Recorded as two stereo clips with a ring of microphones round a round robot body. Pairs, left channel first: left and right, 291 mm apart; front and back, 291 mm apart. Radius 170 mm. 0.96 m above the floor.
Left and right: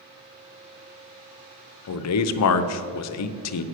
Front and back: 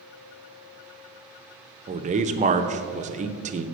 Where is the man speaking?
115° left, 0.6 m.